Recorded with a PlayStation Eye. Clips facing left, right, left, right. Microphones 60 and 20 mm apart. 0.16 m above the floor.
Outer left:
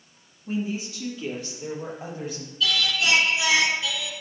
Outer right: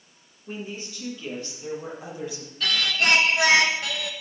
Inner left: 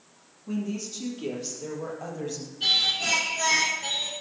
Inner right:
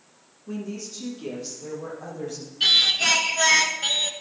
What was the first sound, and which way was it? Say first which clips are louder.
A woman speaking: outer left 7 dB, inner left 2 dB; 10° left (ahead or behind).